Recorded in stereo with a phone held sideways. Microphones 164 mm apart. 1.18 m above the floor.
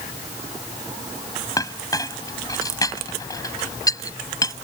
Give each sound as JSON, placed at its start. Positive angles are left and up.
{"t": 1.6, "sound": "a clink", "side_deg": 20}